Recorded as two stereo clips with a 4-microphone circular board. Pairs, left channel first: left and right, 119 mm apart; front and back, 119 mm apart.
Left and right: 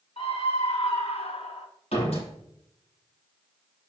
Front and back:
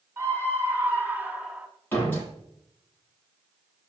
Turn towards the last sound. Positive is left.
turn(degrees=70)